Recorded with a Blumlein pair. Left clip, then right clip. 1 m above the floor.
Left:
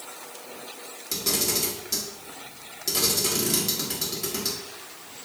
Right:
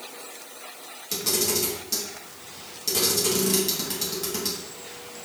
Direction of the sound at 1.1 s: Straight ahead.